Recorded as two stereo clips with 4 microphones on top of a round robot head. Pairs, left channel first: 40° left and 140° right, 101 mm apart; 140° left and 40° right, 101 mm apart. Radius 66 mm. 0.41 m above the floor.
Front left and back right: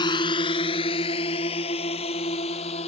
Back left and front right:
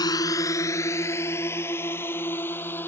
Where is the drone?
85° left; by 2.9 s 70° left.